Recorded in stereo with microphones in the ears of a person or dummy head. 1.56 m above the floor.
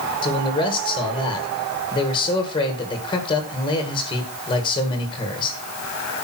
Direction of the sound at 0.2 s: 25° left (ahead or behind).